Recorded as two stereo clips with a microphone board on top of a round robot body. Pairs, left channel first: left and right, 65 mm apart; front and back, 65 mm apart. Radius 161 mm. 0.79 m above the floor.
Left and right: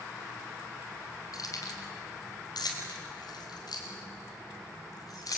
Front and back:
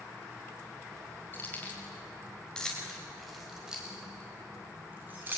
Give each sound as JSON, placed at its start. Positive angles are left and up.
{"t": 1.3, "sound": "keys jangling", "azimuth_deg": 60, "distance_m": 4.0}